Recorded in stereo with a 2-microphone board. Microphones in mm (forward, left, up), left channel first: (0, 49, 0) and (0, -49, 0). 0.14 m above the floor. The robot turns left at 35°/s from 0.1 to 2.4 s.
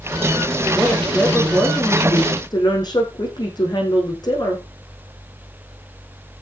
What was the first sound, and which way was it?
A woman speaking, 165° right.